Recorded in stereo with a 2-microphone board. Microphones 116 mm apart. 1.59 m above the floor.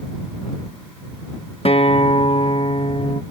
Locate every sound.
1.6 s a guitar: 55° left (ahead or behind)